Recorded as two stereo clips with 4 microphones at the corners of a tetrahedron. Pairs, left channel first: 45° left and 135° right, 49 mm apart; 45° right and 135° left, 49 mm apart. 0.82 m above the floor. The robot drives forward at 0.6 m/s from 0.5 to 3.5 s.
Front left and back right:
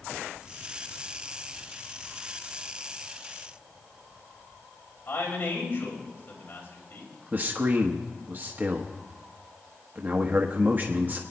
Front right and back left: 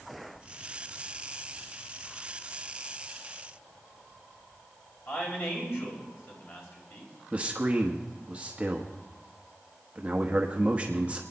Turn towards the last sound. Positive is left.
turn(degrees=-170)